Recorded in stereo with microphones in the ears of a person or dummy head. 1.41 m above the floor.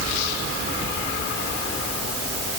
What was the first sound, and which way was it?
Only background noise.